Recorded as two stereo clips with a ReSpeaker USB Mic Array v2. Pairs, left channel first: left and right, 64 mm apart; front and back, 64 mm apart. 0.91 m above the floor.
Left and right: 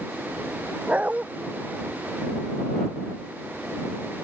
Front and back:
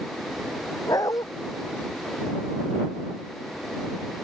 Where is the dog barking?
20° right.